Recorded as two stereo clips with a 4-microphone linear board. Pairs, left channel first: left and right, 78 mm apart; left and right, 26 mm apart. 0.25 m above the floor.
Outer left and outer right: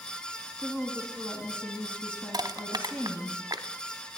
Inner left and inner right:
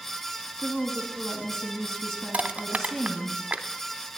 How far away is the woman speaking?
About 2.5 m.